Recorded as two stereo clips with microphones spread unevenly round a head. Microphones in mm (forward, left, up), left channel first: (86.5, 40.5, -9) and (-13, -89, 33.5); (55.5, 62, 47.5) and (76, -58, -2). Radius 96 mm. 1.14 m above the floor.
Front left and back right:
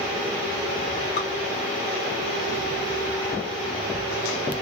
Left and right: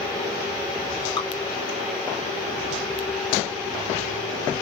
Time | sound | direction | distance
1.2 | dripping | 35° left | 1.2 m